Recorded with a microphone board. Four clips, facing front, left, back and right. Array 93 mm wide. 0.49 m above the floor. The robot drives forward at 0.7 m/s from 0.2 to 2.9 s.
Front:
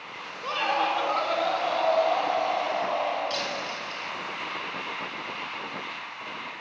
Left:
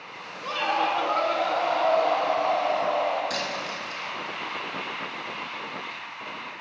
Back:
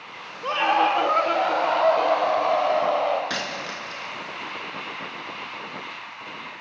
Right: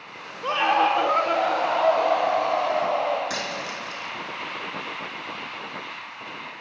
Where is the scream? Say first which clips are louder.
Right 5 dB, back 6 dB; 130° right, 1.2 m; by 3.2 s 165° right, 2.5 m.